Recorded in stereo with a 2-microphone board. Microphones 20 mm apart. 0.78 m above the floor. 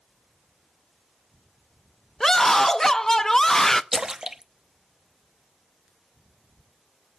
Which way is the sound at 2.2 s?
20° left (ahead or behind).